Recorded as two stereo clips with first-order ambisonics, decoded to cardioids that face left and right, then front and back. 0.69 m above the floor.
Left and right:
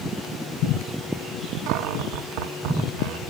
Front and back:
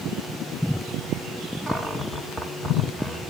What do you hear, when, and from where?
1.7 s a cupboard door: 90° right, 0.8 m